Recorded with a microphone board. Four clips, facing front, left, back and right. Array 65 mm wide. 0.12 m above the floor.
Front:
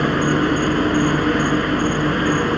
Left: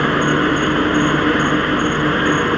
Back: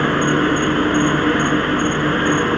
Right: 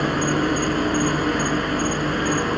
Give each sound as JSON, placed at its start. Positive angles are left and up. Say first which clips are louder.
{"t": 0.0, "sound": "an insect", "louder": "left 6 dB, back 1 dB", "azimuth_deg": 105, "distance_m": 2.5}